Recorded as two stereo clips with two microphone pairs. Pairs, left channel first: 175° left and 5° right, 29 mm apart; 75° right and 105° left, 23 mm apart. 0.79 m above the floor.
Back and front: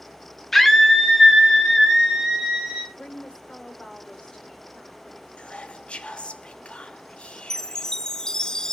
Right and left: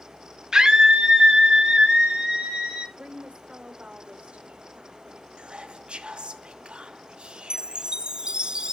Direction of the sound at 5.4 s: 135° left.